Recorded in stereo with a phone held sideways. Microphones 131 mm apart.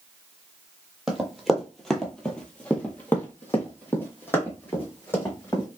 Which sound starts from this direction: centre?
Running footsteps, at 1.1 s.